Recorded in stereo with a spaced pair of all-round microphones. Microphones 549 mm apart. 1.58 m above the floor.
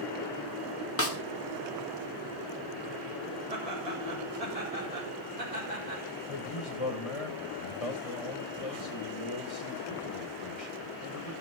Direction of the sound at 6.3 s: 70° left (ahead or behind).